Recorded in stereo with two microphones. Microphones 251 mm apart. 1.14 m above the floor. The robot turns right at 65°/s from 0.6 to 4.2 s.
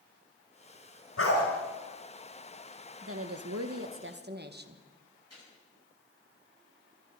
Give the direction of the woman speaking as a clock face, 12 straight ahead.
4 o'clock.